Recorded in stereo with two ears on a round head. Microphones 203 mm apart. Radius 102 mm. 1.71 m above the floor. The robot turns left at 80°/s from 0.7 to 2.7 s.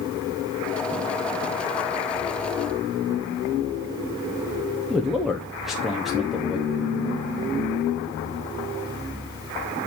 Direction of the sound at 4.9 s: Centre (ahead or behind).